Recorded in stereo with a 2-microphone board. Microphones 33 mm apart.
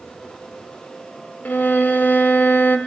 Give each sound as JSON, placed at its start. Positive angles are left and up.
{"t": 1.4, "sound": "a violin", "side_deg": 70, "distance_m": 1.1}